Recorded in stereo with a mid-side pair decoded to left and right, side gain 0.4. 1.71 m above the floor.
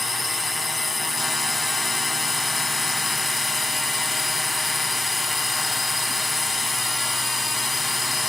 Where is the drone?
25° left.